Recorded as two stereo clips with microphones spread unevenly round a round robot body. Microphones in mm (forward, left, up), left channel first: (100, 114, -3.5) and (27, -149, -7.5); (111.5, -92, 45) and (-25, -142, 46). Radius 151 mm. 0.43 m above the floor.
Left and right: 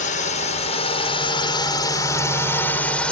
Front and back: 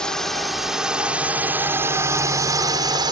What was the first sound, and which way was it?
A drone, 105° left.